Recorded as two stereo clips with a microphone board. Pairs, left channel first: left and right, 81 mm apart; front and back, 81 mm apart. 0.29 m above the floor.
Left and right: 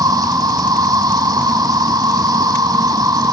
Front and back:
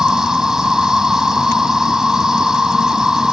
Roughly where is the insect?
Right.